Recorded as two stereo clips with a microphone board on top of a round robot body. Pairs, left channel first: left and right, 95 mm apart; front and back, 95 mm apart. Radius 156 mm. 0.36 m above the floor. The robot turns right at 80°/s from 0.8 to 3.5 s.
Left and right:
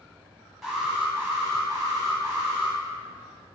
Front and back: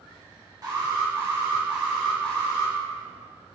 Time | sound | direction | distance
0.6 | an alarm | 170° right | 1.7 m